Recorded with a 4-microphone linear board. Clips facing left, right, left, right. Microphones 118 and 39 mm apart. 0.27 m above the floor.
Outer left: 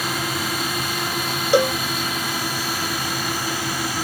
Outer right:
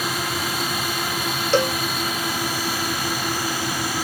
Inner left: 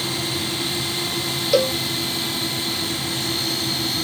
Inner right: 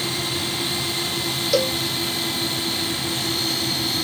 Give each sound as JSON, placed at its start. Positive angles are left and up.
{"t": 1.5, "sound": "a cowbell", "side_deg": 10}